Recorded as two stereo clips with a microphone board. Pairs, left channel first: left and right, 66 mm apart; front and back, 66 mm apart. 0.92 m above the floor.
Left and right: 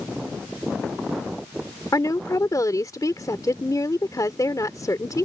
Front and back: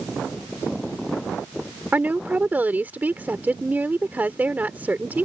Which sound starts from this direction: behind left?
A woman speaking, at 1.9 s.